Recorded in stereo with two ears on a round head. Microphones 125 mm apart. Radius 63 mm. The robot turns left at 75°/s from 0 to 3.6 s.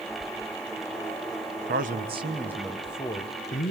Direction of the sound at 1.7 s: 105° right.